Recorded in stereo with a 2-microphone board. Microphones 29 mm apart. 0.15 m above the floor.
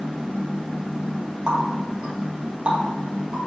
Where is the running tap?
35° right (ahead or behind), 2 m.